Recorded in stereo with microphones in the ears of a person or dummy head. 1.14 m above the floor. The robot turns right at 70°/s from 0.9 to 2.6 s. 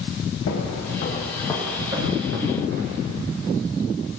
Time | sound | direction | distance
0.5 | footsteps | 65° left (ahead or behind) | 3 m